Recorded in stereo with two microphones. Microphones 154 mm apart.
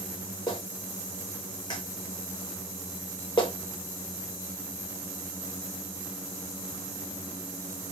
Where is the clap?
30° left (ahead or behind), 1.4 m.